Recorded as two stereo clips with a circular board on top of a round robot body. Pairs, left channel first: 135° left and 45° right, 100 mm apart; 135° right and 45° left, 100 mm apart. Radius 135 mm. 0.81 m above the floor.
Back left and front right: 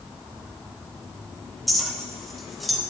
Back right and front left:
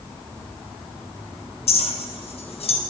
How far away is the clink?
About 1.6 m.